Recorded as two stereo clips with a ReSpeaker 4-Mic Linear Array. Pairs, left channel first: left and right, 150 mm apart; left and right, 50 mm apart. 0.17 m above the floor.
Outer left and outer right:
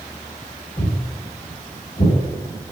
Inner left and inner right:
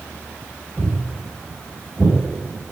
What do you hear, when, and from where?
0.8 s footsteps: 50° left (ahead or behind), 1.8 m; by 2.1 s 75° left (ahead or behind), 2 m